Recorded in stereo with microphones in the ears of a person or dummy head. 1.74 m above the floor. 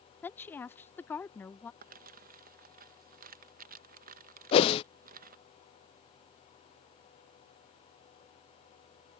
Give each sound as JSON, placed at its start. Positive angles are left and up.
{"t": 0.2, "sound": "a woman speaking", "side_deg": 5}
{"t": 1.8, "sound": "crumpling", "side_deg": -50}
{"t": 4.5, "sound": "a whoosh", "side_deg": 35}